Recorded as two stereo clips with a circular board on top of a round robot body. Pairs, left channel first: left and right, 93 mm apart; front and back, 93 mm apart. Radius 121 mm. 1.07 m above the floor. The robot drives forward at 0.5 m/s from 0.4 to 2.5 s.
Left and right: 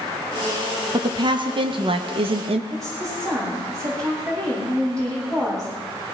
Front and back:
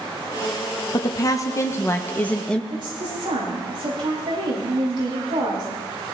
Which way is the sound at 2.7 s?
145° right.